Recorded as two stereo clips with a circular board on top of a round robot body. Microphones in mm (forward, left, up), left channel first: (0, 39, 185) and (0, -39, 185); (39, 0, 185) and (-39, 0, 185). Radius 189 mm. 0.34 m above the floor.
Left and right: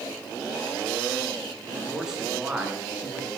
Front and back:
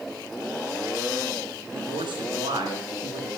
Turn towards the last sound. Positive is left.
turn(degrees=-165)